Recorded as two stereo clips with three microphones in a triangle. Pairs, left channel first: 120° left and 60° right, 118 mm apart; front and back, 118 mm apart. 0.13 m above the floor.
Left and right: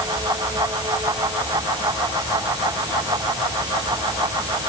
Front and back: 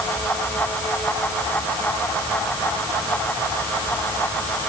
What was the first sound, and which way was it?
Only background noise.